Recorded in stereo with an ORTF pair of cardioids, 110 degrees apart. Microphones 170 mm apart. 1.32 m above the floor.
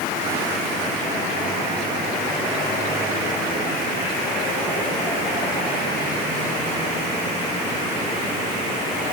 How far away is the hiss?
No hiss in this recording.